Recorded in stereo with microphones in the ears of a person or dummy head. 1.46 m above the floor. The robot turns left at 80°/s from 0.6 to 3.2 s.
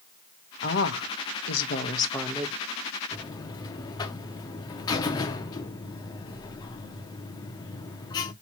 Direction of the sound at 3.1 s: 15° left (ahead or behind).